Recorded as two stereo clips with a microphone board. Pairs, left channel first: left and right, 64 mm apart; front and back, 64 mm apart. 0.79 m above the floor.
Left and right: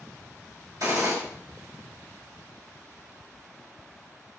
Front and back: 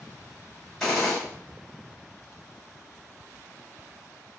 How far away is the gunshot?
About 2 m.